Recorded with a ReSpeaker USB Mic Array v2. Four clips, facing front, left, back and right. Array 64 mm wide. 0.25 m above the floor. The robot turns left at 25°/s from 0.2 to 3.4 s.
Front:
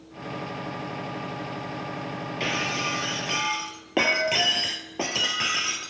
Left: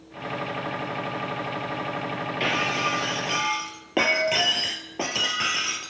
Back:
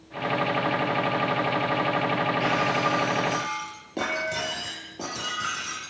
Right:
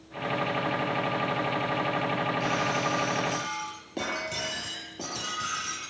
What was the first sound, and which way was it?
Breaking glass, 75° left.